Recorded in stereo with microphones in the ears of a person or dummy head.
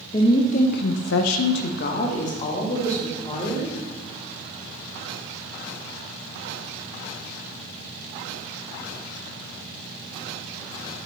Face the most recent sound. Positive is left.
turn(degrees=30)  # may be behind; listen again after turning